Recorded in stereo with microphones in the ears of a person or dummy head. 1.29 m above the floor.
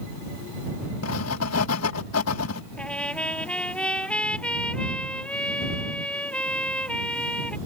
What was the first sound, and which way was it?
Writing, 80° left.